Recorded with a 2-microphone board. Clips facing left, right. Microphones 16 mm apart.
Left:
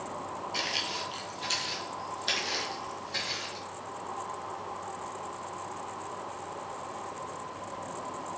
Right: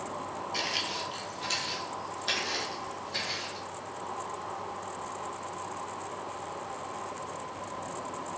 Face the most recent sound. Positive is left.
turn(degrees=20)  # may be behind; listen again after turning